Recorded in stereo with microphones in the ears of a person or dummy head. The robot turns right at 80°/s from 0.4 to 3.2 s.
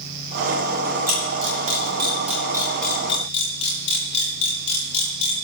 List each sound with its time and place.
1.1 s a camera shutter: 50° right (ahead or behind), 8.5 m; by 5.3 s 40° left (ahead or behind), 8.5 m